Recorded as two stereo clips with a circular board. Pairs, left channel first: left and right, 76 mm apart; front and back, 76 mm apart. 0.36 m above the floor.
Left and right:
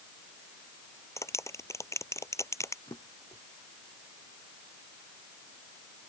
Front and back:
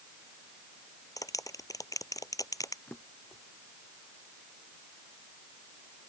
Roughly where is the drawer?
Ahead left.